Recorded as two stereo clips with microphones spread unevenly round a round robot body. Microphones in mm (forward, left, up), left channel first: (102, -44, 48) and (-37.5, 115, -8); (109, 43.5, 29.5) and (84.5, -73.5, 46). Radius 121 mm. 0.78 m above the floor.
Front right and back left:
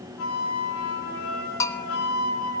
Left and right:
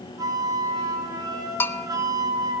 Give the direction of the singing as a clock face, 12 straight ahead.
I don't hear singing.